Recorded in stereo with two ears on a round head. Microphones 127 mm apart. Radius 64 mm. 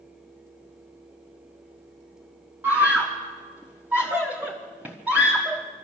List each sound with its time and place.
2.6 s a scream: 10° right (ahead or behind), 1.3 m